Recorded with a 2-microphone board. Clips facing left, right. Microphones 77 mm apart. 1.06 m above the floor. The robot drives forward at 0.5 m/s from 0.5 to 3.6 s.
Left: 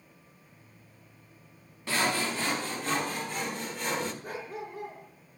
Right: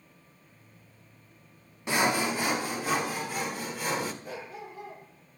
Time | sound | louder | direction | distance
1.9 | sawing | right 3 dB | 20° right (ahead or behind) | 0.6 m
4.2 | a dog barking | left 2 dB | 50° left (ahead or behind) | 6 m